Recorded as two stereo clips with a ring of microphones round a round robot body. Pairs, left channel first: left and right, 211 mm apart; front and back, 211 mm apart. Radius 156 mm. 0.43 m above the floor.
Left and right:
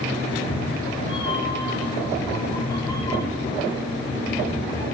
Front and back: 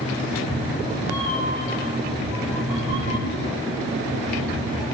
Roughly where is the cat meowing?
Ahead left.